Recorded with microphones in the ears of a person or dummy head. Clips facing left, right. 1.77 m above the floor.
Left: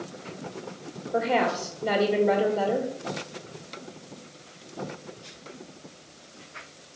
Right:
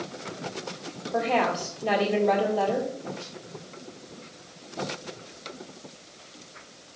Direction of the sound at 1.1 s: 15° left (ahead or behind).